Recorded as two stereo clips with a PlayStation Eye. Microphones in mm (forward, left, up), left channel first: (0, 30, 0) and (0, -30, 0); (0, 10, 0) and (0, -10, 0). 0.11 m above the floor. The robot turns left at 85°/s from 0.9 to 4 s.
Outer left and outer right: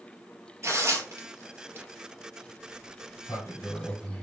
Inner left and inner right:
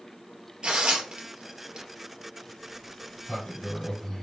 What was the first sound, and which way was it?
Tearing paper, 45° right (ahead or behind).